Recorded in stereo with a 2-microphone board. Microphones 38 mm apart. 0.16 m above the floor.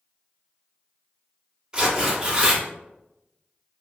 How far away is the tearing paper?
About 1.5 m.